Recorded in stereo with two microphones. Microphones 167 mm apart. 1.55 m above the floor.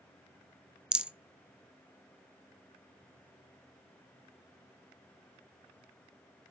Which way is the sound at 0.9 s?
5° right (ahead or behind).